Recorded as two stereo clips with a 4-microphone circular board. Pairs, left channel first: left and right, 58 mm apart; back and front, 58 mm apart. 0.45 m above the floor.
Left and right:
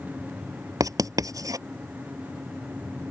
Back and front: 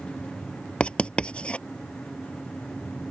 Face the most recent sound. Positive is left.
turn(degrees=-110)